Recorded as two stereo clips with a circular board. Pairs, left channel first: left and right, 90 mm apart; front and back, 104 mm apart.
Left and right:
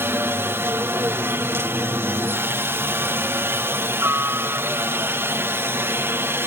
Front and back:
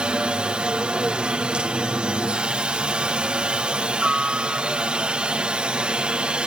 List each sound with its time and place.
0.0 s a helicopter: 110° right